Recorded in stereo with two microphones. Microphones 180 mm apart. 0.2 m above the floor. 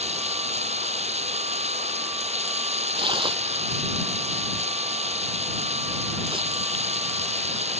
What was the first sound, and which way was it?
Running water, 35° right (ahead or behind).